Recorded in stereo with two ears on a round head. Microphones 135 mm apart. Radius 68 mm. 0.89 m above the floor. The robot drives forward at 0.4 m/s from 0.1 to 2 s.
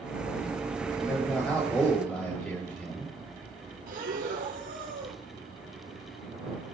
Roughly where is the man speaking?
Centre.